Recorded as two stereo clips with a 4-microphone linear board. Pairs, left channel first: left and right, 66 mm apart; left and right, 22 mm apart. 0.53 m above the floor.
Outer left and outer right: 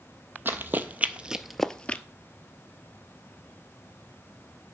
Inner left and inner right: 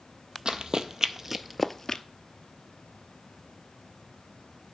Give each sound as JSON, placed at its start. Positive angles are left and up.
{"t": 0.5, "sound": "running footsteps", "side_deg": -35, "distance_m": 0.9}